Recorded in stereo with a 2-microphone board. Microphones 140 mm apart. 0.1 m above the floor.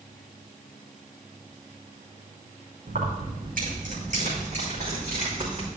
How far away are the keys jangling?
About 5 m.